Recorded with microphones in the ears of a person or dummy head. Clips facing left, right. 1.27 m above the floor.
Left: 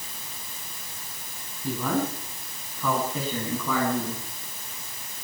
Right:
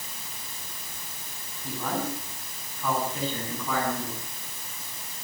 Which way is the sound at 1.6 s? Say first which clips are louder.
Left 4 dB; 70° left (ahead or behind).